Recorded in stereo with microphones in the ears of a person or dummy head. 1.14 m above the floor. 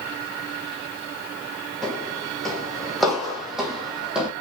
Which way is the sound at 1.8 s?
5° left (ahead or behind).